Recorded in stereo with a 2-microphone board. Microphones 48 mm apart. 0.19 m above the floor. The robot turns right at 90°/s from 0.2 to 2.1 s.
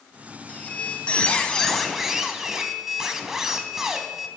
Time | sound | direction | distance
0.5 | a squeak | 25° left (ahead or behind) | 0.8 m